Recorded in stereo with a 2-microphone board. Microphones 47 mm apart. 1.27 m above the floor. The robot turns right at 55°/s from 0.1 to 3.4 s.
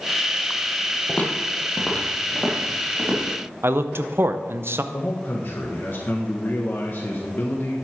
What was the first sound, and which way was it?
Footsteps, 35° left (ahead or behind).